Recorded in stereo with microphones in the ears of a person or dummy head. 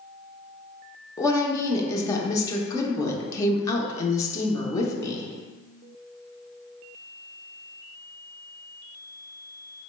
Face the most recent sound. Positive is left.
turn(degrees=20)  # may be behind; listen again after turning